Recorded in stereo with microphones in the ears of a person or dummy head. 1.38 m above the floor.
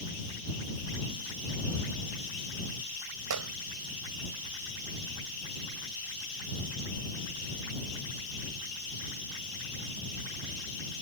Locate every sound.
3.3 s a gunshot: 80° right